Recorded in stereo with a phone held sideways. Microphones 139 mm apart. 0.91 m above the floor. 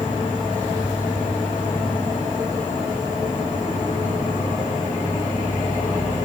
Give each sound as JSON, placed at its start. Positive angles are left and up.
{"t": 0.0, "sound": "an insect", "side_deg": 65, "distance_m": 1.8}